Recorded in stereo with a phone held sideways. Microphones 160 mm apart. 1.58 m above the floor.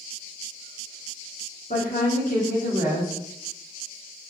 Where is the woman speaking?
60° left (ahead or behind), 1.6 m.